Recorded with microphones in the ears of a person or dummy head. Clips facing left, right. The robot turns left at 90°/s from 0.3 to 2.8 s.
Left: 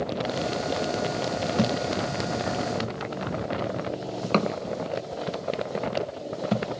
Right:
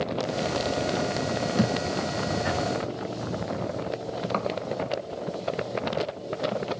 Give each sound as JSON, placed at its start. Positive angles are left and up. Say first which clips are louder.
{"t": 1.6, "sound": "a thud", "louder": "left 1 dB", "side_deg": -5, "distance_m": 1.4}